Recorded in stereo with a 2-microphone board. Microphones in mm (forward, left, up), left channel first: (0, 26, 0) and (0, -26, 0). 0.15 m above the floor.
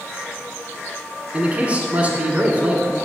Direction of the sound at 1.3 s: 25° right (ahead or behind).